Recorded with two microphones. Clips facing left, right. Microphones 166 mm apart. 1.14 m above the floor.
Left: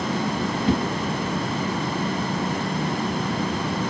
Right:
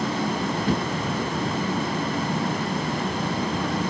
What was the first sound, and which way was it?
A whoosh, 25° left (ahead or behind).